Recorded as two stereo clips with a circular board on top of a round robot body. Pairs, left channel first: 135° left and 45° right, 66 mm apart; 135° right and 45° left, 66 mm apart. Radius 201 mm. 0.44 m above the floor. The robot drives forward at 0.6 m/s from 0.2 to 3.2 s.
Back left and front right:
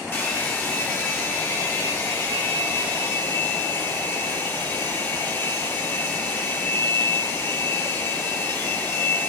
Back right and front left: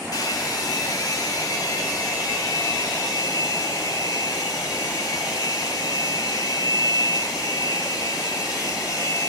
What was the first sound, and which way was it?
A hair dryer, 165° right.